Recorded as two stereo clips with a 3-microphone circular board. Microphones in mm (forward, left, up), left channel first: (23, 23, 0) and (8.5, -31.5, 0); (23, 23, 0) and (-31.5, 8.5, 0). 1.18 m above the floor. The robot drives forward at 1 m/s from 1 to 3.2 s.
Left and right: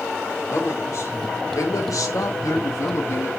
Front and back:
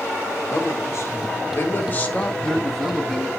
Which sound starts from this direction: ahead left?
A man speaking, at 0.5 s.